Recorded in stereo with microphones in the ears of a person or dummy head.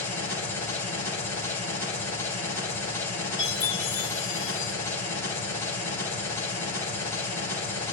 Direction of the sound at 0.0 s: 15° left (ahead or behind).